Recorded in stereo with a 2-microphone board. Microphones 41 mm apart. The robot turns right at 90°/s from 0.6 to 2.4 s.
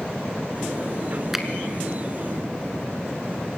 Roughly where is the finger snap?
Centre.